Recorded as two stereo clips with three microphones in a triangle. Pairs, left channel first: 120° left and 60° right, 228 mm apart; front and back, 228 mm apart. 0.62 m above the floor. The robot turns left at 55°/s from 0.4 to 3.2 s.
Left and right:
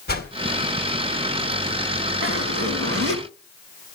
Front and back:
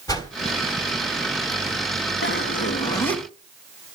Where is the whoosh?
75° left, 3 m.